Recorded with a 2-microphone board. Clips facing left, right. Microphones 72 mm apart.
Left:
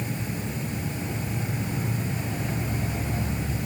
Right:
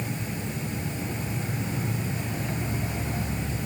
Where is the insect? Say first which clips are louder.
Left 1 dB; 5° left (ahead or behind).